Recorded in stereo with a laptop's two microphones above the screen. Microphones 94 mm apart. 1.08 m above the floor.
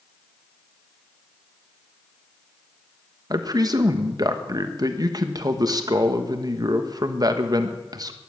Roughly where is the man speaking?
Right.